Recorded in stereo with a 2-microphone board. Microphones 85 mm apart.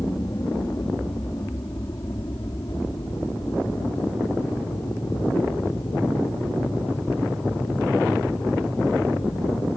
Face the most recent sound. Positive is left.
turn(degrees=60)  # may be behind; listen again after turning